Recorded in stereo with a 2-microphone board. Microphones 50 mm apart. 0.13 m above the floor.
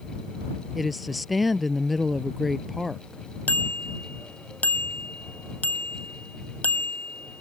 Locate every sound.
0.8 s a woman speaking: centre (ahead or behind)
3.5 s a bicycle bell: 35° left (ahead or behind)